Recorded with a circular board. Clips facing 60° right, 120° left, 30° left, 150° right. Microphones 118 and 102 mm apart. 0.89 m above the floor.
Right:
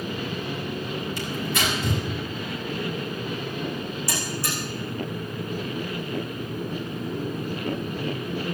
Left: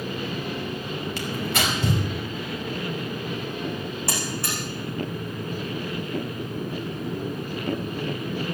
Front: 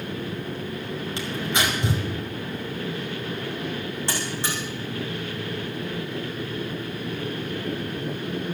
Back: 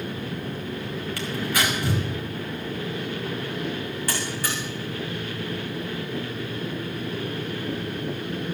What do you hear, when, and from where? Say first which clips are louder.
1.2 s tearing paper: left 2 dB, even; 95° left, 5 m
4.1 s a buzzer: even, even; 95° left, 9 m